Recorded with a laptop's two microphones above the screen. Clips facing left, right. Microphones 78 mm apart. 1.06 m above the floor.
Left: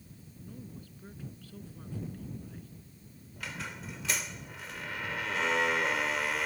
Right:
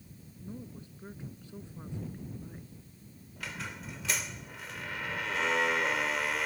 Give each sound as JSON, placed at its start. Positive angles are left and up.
{"t": 0.4, "sound": "a woman speaking", "side_deg": -20}
{"t": 3.4, "sound": "a squeak", "side_deg": 0}